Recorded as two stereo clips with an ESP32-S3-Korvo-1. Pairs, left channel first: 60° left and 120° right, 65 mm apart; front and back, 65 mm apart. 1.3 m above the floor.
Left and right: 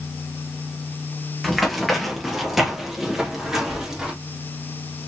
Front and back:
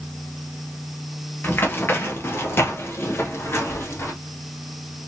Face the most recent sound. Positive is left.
turn(degrees=-40)